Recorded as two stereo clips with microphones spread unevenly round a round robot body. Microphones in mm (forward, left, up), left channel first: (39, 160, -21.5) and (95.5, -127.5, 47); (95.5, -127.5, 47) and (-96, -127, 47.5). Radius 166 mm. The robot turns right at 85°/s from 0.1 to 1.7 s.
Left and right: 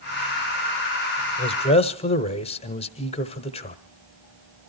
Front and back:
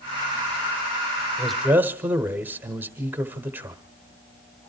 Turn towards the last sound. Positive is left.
turn(degrees=105)